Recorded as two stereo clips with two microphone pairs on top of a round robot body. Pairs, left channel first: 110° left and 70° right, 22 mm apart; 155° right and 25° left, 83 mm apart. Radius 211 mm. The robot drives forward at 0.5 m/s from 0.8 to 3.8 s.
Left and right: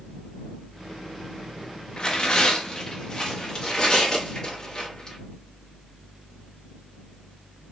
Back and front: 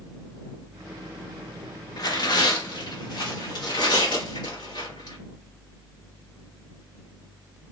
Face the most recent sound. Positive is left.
turn(degrees=175)